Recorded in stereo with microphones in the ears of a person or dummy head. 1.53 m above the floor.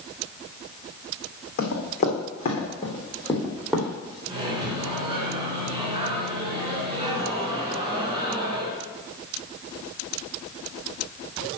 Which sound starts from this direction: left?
Running footsteps, at 1.6 s.